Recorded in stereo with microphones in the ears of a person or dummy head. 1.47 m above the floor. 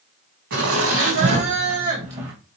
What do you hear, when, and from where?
0.5 s laughter: 70° right (ahead or behind), 1.3 m; by 2.3 s 20° right (ahead or behind), 0.5 m